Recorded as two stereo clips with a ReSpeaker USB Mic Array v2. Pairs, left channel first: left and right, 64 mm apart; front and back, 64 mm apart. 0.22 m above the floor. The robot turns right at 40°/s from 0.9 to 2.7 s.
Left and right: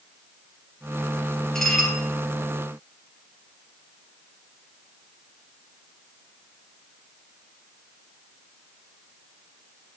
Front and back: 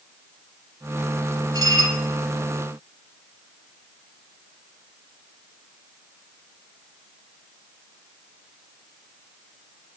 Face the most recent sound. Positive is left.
turn(degrees=-145)